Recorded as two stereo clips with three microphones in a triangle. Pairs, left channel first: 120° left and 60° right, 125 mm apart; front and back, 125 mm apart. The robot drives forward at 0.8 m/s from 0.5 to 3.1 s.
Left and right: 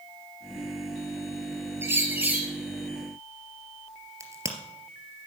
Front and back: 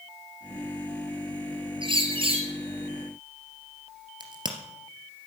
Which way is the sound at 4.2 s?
125° right.